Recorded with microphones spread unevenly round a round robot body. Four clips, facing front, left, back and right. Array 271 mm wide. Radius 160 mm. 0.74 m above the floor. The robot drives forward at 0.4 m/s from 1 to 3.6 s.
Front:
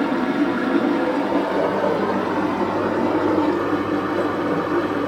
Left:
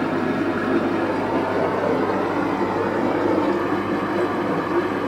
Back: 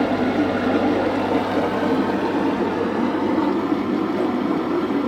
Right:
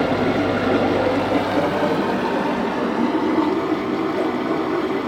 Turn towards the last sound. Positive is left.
turn(degrees=-150)